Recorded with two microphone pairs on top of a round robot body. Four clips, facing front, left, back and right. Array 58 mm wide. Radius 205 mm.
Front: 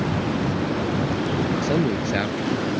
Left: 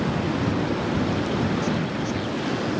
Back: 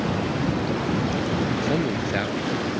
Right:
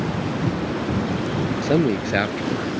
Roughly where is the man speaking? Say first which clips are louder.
Right 6 dB, front 2 dB; right.